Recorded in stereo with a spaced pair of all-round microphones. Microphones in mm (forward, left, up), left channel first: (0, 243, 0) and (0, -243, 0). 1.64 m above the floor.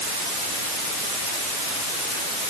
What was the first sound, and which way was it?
Only background noise.